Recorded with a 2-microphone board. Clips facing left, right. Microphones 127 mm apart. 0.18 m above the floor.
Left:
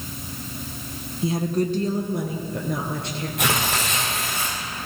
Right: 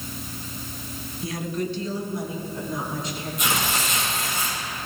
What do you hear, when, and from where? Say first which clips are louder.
1.2 s a woman speaking: left 6 dB; 25° left (ahead or behind), 1.1 m; by 3.3 s 70° left (ahead or behind), 3 m
3.4 s tearing paper: left 2 dB; 65° left (ahead or behind), 4 m